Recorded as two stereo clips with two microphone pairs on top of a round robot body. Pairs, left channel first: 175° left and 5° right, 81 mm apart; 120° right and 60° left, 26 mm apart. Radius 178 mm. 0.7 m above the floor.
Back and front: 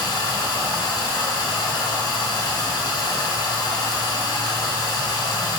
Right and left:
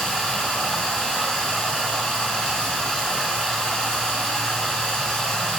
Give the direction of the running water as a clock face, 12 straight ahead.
6 o'clock.